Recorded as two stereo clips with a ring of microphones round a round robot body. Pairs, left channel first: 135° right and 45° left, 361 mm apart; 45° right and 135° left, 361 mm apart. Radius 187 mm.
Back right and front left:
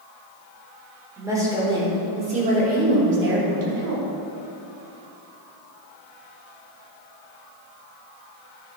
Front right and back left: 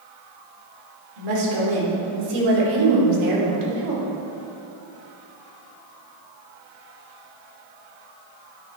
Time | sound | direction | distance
1.2 | a woman speaking | 130° left | 4 m